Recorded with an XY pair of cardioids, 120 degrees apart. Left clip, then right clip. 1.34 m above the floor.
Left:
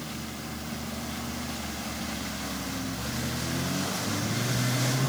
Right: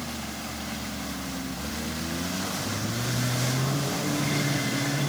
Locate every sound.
Only background noise.